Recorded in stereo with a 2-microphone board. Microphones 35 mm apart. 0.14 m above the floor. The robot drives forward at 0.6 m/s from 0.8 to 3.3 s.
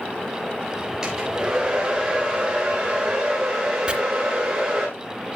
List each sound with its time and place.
1.0 s a hair dryer: 15° right (ahead or behind), 5 m; by 4.9 s 10° right (ahead or behind), 6 m
3.9 s chopping: 25° right (ahead or behind), 2 m